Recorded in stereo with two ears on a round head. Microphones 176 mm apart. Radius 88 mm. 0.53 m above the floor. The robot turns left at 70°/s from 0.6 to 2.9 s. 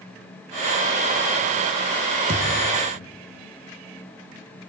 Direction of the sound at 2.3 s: 40° right.